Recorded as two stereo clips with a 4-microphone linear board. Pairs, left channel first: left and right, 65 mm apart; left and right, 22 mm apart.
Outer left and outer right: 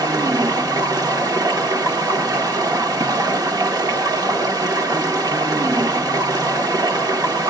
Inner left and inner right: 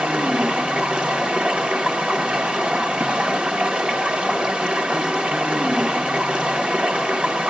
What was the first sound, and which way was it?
Running water, 80° right.